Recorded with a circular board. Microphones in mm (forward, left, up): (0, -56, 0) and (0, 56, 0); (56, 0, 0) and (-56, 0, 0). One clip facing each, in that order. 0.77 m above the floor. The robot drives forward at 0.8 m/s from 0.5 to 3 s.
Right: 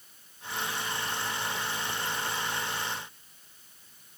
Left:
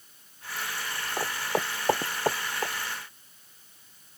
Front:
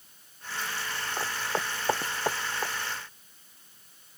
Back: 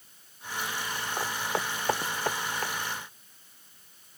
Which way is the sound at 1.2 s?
95° left.